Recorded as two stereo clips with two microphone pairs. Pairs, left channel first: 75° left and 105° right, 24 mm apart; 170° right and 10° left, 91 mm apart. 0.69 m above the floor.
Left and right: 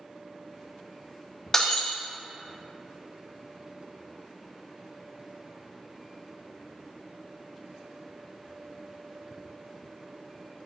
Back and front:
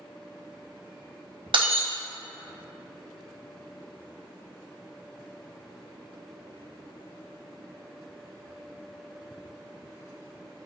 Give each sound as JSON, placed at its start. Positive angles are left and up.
{"t": 1.5, "sound": "breaking glass", "azimuth_deg": 10, "distance_m": 1.3}